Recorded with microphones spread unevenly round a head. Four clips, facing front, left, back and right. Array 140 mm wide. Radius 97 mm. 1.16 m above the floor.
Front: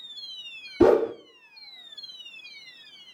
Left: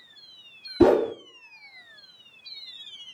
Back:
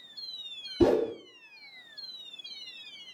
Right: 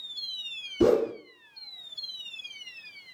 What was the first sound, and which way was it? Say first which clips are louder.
A whoosh: left 4 dB, front 5 dB; 60° left.